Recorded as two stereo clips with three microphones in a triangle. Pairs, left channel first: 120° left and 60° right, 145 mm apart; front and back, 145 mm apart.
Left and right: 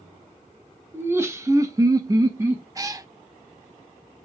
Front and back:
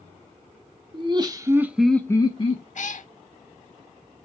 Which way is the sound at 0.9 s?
130° right.